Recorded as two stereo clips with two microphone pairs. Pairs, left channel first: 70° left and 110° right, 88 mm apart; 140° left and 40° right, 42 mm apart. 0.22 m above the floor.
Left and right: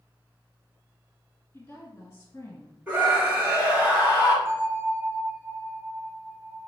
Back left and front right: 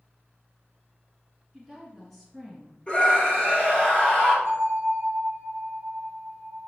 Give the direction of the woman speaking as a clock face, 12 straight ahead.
10 o'clock.